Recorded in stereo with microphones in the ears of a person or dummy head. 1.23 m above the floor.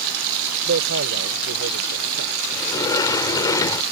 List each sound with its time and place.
0.7 s a man speaking: 60° right (ahead or behind)
2.5 s a sliding door: 25° left (ahead or behind)